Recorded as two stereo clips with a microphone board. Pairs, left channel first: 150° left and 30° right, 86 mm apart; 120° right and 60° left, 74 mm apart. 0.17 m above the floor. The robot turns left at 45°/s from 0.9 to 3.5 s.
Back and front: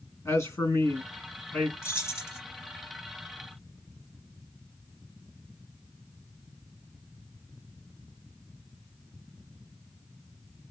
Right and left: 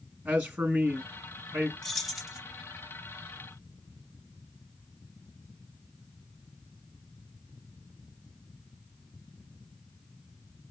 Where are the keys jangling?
160° left, 1.1 m; by 2.4 s 135° left, 1.1 m.